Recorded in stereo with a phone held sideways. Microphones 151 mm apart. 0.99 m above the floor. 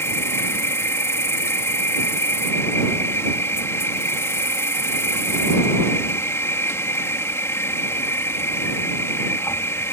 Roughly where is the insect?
Centre.